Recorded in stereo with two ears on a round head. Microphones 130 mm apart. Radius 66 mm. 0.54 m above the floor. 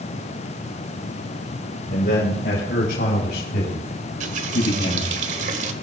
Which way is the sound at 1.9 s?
65° left (ahead or behind).